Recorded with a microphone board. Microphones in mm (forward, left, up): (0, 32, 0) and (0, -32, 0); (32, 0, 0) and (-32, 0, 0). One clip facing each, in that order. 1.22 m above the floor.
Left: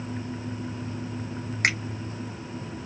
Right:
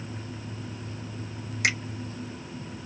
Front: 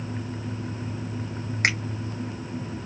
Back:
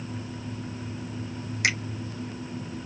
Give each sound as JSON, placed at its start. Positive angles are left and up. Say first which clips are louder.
{"t": 1.6, "sound": "a finger snap", "louder": "left 2 dB, front 2 dB", "azimuth_deg": 50, "distance_m": 1.2}